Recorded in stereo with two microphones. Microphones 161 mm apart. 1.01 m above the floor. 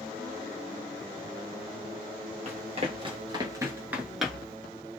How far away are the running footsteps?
About 1.3 m.